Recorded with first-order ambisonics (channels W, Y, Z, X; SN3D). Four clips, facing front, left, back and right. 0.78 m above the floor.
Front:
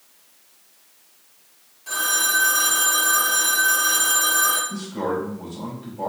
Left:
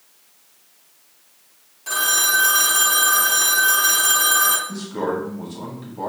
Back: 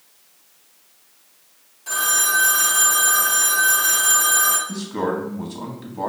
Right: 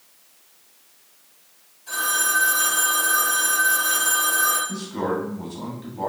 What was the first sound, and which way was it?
A phone ringing, 105° left.